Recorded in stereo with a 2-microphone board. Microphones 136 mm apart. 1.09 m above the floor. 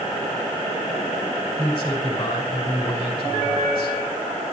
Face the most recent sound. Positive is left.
turn(degrees=35)  # may be behind; listen again after turning